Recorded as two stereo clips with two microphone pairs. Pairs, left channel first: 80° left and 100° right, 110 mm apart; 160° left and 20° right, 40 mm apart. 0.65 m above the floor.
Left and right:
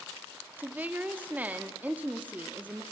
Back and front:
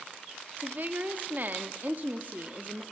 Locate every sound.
0.6 s a woman speaking: 30° right, 0.9 m